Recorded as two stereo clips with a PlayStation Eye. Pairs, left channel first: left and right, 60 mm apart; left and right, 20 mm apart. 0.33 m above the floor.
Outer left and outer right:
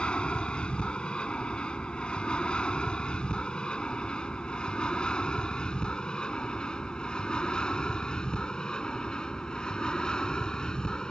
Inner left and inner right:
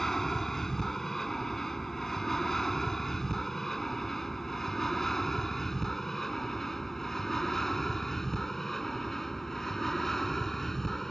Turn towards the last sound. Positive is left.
turn(degrees=10)  # may be behind; listen again after turning